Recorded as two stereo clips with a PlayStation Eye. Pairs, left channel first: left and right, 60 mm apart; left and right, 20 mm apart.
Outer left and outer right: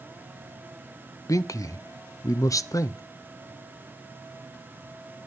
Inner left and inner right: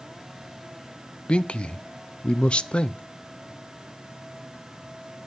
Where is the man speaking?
65° left (ahead or behind), 0.6 m.